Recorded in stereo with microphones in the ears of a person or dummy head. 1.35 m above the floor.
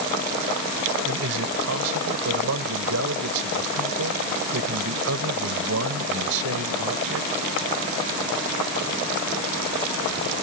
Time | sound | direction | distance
1.1 | a man speaking | 85° right | ?